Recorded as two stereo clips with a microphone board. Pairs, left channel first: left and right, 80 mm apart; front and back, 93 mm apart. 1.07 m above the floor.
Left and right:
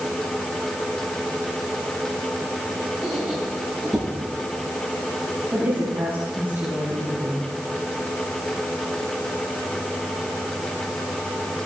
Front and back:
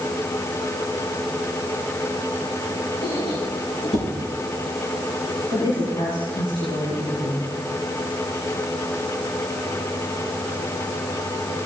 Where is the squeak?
Straight ahead, 7.5 m.